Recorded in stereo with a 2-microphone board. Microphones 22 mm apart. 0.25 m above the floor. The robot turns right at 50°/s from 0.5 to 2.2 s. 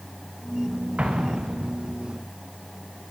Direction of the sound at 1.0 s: 120° right.